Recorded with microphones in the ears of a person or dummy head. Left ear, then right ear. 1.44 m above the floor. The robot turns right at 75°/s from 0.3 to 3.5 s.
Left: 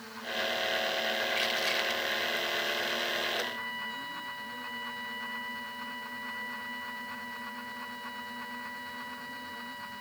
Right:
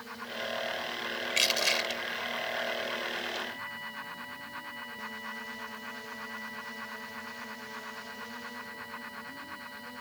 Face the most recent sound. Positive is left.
turn(degrees=35)  # may be behind; listen again after turning